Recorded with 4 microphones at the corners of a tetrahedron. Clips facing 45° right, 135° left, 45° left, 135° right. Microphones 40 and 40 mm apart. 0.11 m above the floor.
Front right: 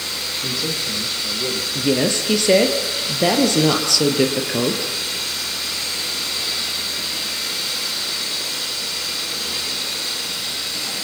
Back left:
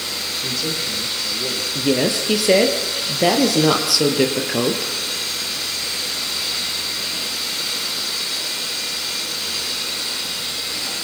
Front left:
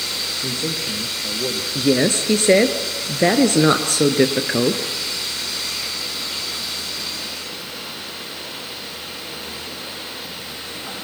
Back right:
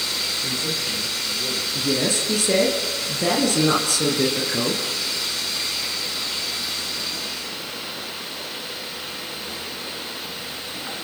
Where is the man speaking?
40° left, 5.5 m.